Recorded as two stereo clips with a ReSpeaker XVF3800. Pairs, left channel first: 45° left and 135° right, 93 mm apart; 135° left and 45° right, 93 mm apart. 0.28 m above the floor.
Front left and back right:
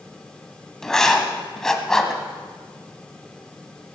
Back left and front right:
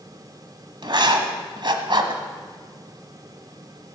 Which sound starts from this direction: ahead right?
Writing, at 0.8 s.